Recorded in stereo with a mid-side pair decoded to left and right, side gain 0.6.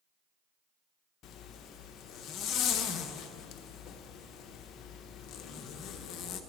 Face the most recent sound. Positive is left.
turn(degrees=55)